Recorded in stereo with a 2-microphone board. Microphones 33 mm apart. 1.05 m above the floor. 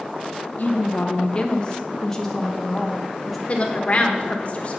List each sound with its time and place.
0.6 s a woman speaking: 55° left (ahead or behind), 0.9 m; by 3.4 s 5° right (ahead or behind), 1.9 m
3.5 s a woman speaking: 45° left (ahead or behind), 1.0 m